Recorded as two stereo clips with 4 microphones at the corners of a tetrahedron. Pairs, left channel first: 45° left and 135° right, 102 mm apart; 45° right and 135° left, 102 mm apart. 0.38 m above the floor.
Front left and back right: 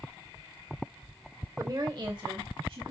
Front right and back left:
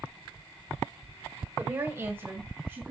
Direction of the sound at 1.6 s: 170° right.